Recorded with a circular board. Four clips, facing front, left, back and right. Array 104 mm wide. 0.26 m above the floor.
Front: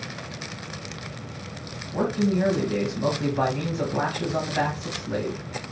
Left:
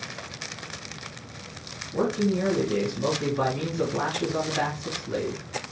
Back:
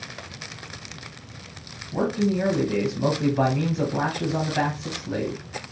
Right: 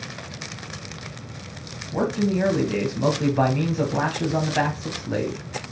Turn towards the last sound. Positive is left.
turn(degrees=-95)